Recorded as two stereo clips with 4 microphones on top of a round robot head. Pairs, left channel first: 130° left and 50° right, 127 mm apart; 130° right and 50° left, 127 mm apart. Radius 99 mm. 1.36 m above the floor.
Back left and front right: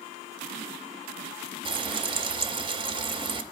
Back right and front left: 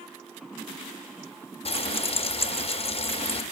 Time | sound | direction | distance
1.6 | frying | 95° right | 0.6 m